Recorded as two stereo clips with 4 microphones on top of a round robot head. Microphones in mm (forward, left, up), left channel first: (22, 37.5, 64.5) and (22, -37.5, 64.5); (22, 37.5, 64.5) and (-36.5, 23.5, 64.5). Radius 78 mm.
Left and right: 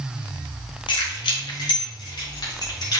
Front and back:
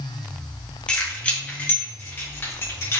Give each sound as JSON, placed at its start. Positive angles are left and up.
{"t": 0.9, "sound": "keys jangling", "azimuth_deg": 85, "distance_m": 2.5}